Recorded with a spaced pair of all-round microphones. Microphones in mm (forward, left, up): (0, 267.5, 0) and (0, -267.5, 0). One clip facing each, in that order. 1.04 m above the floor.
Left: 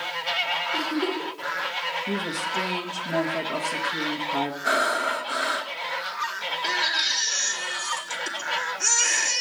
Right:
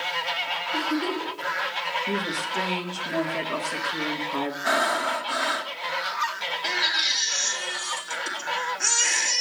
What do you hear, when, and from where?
0.7 s a giggle: 40° right (ahead or behind), 2.5 m
2.1 s a woman speaking: 5° left (ahead or behind), 1.3 m
4.6 s breathing: 20° right (ahead or behind), 0.7 m
6.6 s a baby crying: centre (ahead or behind), 1.4 m